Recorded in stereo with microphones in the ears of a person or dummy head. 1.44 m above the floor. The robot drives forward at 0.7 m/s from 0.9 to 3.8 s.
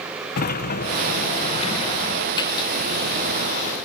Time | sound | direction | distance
0.4 | a sliding door | 50° left (ahead or behind) | ?